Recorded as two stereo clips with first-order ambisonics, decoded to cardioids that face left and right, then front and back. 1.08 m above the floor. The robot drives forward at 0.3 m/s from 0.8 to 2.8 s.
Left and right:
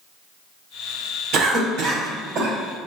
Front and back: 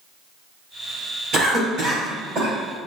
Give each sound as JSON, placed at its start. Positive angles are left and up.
{"t": 1.3, "sound": "a cough", "azimuth_deg": -120, "distance_m": 1.2}